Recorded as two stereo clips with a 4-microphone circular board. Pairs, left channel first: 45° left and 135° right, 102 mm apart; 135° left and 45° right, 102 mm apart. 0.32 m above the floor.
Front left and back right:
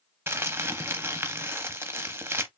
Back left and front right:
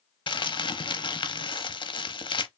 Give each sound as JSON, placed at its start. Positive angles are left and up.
{"t": 0.3, "sound": "crumpling", "azimuth_deg": 160, "distance_m": 0.7}